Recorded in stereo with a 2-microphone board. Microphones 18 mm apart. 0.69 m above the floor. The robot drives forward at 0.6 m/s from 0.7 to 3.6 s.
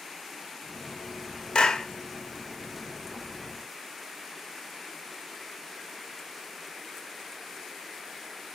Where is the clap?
55° left (ahead or behind), 0.9 m; by 1.9 s 60° left (ahead or behind), 0.9 m.